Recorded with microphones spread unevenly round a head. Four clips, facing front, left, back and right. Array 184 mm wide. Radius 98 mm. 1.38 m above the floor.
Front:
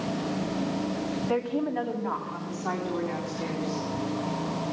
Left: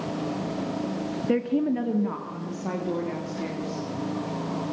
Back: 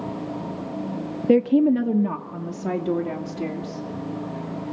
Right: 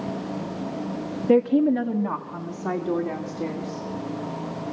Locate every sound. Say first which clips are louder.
1.3 s a woman speaking: right 6 dB, back 13 dB; straight behind, 1.0 m; by 3.9 s 175° left, 4 m